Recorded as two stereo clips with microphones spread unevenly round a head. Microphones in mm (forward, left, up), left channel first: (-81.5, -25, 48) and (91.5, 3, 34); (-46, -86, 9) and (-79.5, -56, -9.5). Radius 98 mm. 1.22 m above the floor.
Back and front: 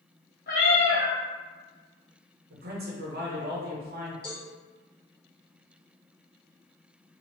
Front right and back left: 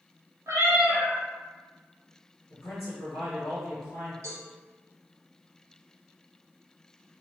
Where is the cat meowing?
155° left, 0.9 m.